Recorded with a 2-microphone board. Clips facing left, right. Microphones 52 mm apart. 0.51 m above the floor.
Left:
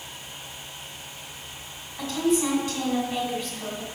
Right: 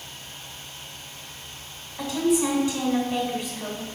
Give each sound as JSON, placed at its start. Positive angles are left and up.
{"t": 2.0, "sound": "a woman speaking", "side_deg": -15, "distance_m": 1.7}